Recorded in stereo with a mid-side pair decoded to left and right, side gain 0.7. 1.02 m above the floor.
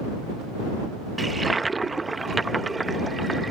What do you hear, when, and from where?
1.2 s a toilet flushing: 15° right